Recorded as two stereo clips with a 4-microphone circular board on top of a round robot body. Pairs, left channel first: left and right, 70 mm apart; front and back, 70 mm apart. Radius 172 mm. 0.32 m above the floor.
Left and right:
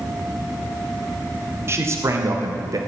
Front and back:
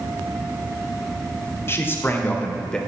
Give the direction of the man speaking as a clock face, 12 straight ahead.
2 o'clock.